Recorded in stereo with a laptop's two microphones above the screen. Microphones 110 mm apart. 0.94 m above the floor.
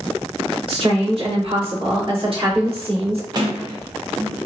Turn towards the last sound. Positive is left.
turn(degrees=-40)  # may be behind; listen again after turning